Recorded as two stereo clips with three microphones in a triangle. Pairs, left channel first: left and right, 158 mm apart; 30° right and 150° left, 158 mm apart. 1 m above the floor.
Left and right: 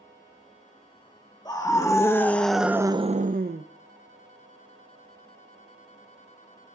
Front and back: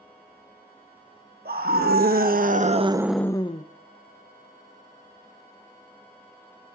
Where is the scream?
155° left, 1.6 m; by 3.6 s 80° right, 0.7 m.